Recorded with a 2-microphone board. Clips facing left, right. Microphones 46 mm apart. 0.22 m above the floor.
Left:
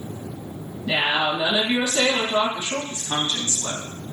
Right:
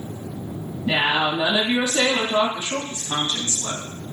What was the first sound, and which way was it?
A woman speaking, 30° right (ahead or behind).